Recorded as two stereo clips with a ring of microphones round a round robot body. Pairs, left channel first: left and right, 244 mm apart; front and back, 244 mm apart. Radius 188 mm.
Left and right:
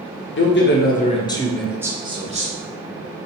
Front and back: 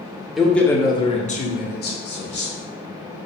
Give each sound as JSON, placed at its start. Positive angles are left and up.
{"t": 0.4, "sound": "a man speaking", "azimuth_deg": 90, "distance_m": 1.1}